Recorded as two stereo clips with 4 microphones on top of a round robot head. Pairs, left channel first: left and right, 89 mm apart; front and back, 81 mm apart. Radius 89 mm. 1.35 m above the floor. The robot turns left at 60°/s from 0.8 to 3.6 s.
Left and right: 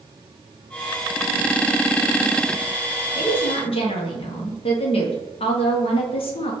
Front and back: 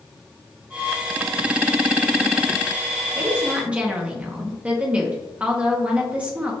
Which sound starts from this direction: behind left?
A woman speaking, at 3.1 s.